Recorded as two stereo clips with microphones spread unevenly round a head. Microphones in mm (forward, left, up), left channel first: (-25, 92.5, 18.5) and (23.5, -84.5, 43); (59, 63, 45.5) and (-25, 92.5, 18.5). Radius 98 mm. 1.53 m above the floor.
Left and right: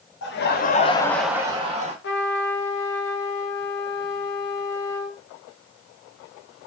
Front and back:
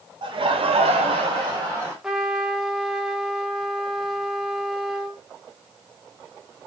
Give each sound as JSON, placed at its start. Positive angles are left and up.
{"t": 0.2, "sound": "laughter", "azimuth_deg": 135, "distance_m": 1.0}
{"t": 2.0, "sound": "a trumpet", "azimuth_deg": 75, "distance_m": 0.8}